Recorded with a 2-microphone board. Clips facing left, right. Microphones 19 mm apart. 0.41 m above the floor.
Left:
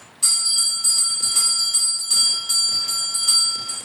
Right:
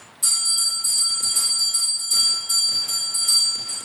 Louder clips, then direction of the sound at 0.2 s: Left 2 dB; 40° left (ahead or behind).